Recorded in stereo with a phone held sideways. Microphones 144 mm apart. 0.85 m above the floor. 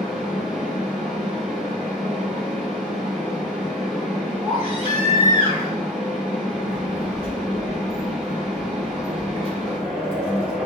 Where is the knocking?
No knocking in this recording.